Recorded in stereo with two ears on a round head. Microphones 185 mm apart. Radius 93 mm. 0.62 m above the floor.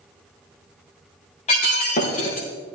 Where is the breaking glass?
35° left (ahead or behind), 4.5 m.